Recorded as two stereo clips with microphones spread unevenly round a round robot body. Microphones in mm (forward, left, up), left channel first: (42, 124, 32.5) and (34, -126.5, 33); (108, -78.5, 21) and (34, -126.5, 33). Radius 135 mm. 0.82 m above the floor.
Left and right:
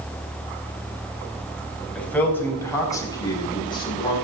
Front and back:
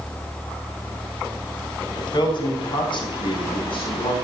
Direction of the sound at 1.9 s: 5° left.